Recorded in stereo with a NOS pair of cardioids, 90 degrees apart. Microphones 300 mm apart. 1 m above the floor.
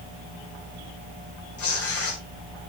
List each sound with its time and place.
1.6 s tearing paper: 50° left, 6.5 m